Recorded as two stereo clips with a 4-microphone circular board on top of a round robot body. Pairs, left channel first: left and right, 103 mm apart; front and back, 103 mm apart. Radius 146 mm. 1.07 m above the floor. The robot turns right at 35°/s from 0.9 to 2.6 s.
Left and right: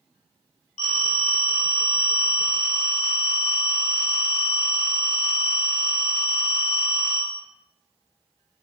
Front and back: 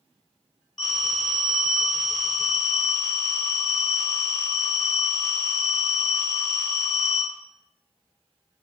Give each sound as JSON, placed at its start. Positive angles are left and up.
{"t": 0.8, "sound": "a phone ringing", "azimuth_deg": 85, "distance_m": 0.7}